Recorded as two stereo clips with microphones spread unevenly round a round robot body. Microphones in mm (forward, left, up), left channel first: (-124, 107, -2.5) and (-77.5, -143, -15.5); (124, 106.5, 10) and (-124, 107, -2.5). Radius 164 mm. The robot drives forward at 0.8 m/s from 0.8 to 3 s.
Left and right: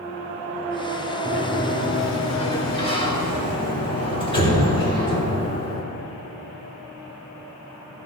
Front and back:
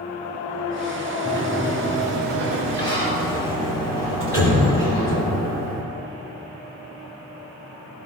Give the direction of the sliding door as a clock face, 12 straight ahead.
7 o'clock.